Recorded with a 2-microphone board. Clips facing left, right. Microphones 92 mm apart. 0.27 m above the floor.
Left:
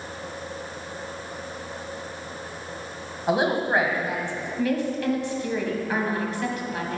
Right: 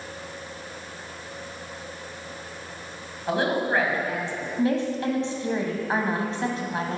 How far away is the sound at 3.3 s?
About 1.6 m.